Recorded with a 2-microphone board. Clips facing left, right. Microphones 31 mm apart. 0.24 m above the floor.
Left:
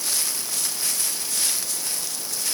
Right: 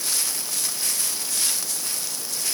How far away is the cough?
No cough in this recording.